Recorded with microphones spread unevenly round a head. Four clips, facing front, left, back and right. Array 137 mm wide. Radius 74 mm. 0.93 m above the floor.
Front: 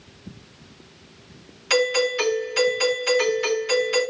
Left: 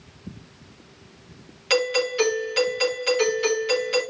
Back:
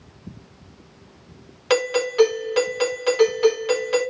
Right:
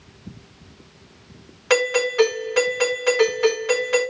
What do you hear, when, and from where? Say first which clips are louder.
1.7 s a doorbell: right 3 dB, back 1 dB; 145° right, 3.5 m